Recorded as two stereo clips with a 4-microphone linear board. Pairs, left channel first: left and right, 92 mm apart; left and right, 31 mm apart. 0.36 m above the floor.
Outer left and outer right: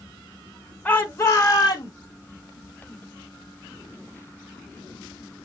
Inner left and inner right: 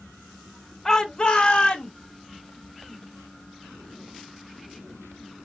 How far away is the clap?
I don't hear a clap.